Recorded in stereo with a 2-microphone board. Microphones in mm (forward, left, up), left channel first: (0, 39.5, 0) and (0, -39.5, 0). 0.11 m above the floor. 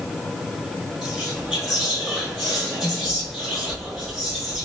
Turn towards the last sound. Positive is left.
turn(degrees=-10)  # may be behind; listen again after turning